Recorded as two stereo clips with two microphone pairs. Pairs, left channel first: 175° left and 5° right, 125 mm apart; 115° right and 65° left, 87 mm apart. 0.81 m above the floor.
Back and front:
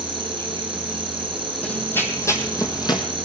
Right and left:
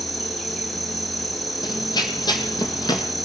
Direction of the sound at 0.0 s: 30° right.